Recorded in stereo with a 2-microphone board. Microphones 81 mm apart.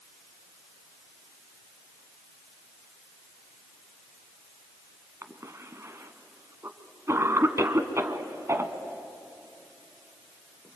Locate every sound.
5.2 s a cough: 35° right (ahead or behind), 1.7 m